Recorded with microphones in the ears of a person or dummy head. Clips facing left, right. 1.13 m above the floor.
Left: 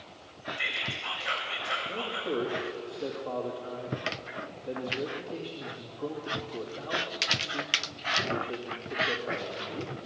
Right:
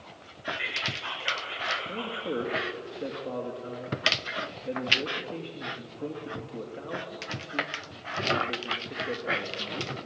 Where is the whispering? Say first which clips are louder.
Right 1 dB; 55° right (ahead or behind), 5.5 m.